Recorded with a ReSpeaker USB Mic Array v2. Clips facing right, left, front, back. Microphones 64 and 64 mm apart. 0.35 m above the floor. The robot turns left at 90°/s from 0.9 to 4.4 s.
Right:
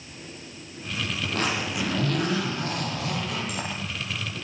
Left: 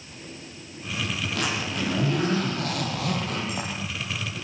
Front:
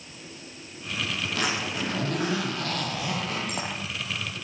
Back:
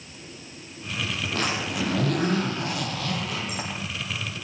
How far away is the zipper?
About 10 m.